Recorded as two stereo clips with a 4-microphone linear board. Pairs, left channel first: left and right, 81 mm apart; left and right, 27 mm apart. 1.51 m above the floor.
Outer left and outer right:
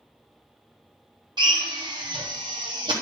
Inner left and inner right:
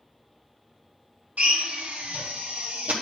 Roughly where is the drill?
Right.